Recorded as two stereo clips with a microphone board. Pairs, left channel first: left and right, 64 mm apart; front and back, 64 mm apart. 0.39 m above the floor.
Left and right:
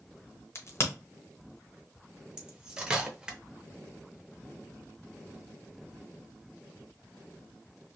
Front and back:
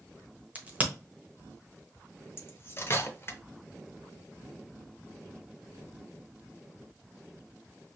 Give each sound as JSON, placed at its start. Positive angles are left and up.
{"t": 0.6, "sound": "a crack", "azimuth_deg": 115, "distance_m": 0.8}
{"t": 2.4, "sound": "cutlery clinking", "azimuth_deg": -20, "distance_m": 0.6}